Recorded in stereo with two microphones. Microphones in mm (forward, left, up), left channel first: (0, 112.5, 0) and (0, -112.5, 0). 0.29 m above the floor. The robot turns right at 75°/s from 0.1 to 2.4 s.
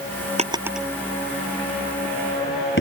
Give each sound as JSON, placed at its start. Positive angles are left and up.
{"t": 0.4, "sound": "a drawer", "side_deg": -30}